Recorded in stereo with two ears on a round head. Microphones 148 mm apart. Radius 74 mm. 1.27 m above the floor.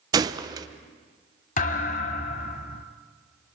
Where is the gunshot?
25° right (ahead or behind), 0.6 m.